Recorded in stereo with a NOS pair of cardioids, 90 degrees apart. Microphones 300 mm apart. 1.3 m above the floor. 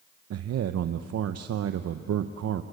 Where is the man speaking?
55° right, 0.9 m.